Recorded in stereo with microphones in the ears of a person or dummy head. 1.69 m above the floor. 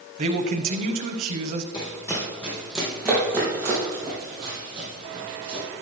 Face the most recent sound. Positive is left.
turn(degrees=-30)  # may be behind; listen again after turning